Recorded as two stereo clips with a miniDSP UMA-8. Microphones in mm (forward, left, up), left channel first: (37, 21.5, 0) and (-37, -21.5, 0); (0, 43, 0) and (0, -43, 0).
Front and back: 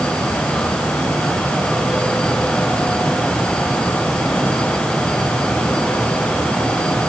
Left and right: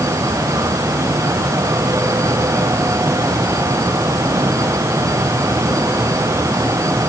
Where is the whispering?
No whispering in this recording.